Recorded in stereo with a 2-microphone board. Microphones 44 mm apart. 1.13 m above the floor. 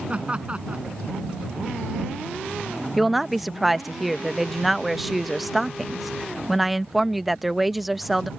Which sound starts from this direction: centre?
A woman speaking, at 3.0 s.